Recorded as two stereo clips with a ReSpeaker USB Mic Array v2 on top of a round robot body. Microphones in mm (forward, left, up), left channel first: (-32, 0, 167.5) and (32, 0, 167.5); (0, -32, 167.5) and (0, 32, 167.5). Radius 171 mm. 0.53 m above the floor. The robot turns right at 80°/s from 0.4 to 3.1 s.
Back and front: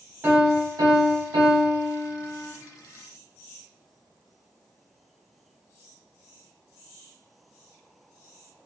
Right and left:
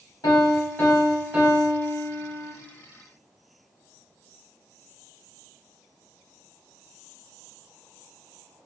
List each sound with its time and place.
0.2 s a piano: 55° right, 0.8 m; by 2.5 s 115° left, 0.8 m